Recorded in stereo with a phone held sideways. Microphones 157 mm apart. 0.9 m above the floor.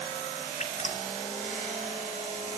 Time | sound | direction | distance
0.6 | dripping | 50° left (ahead or behind) | 2.5 m